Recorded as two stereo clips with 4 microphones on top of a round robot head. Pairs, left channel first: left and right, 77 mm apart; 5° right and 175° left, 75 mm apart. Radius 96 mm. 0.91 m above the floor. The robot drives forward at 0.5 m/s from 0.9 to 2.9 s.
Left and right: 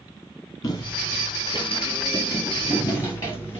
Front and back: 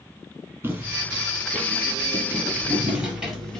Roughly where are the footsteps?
Behind left.